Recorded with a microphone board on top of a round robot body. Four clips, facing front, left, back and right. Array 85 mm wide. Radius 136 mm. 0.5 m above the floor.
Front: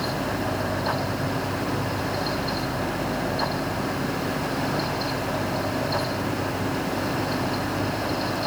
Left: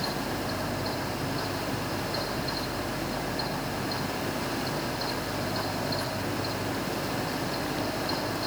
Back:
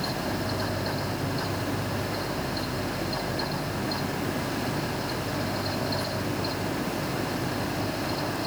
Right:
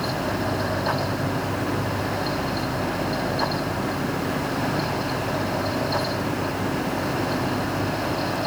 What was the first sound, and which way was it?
Only background noise.